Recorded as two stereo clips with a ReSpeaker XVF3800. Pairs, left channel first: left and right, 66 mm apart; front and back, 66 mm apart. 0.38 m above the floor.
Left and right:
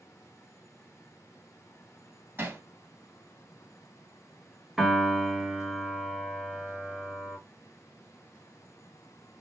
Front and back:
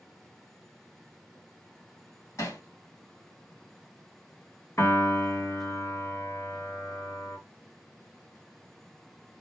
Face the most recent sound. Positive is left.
turn(degrees=-5)